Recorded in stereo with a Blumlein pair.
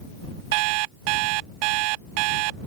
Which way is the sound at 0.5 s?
45° right.